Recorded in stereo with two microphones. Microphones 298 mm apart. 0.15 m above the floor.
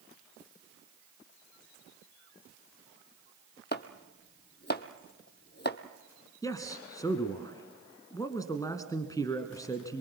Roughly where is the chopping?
Left.